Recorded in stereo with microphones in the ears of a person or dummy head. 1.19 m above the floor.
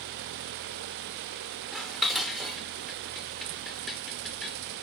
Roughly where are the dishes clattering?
Centre.